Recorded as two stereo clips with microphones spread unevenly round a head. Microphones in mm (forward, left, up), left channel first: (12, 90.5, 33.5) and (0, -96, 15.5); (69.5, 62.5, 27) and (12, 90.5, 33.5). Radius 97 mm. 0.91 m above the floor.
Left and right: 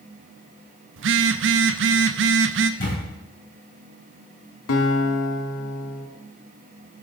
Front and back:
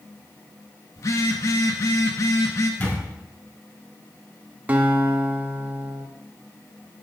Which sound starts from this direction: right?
A phone buzzing, at 1.0 s.